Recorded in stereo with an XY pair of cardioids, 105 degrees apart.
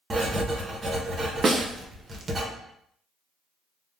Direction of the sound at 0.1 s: 35° right.